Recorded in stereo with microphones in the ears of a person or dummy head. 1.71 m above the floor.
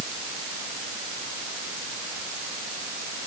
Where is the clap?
No clap in this recording.